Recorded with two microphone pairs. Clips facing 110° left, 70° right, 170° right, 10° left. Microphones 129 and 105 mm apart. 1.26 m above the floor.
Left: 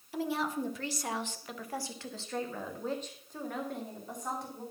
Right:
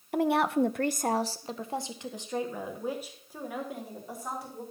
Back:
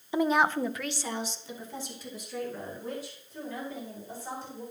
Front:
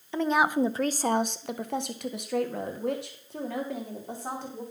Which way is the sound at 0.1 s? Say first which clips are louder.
Right 8 dB, front 1 dB; 90° right.